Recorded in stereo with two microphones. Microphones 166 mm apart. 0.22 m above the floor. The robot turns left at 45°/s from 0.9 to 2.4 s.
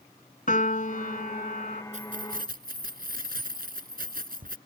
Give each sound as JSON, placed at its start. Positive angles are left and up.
{"t": 0.5, "sound": "a piano", "azimuth_deg": 110}
{"t": 1.9, "sound": "keys jangling", "side_deg": -50}